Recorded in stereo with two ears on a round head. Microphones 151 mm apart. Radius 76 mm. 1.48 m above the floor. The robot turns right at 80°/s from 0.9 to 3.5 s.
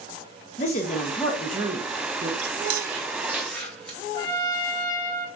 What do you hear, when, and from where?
0.6 s a woman speaking: 135° left, 0.9 m; by 2.3 s 110° right, 0.9 m
2.4 s chewing: 80° right, 1.3 m; by 4.0 s 5° left (ahead or behind), 1.3 m
4.1 s a trumpet: 20° left (ahead or behind), 0.8 m